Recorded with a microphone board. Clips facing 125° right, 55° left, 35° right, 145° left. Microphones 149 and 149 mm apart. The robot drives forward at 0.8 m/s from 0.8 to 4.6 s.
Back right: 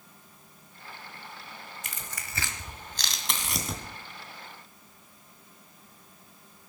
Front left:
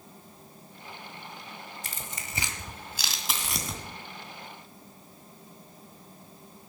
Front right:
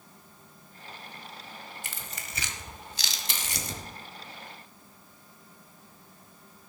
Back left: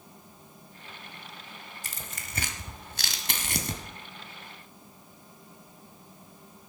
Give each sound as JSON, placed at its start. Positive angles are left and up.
{"t": 1.8, "sound": "tearing paper", "azimuth_deg": 105, "distance_m": 1.3}